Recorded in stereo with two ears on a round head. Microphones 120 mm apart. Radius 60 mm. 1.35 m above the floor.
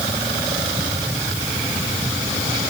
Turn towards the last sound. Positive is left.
No sound to turn to.